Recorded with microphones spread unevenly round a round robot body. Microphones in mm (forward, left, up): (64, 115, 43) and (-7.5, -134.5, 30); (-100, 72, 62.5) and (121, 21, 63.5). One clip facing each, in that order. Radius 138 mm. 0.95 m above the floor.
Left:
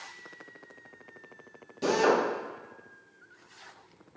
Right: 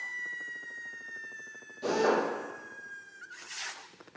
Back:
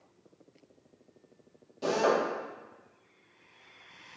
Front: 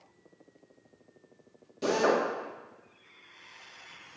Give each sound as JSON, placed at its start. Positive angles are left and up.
{"t": 1.8, "sound": "a drill", "azimuth_deg": 55, "distance_m": 1.4}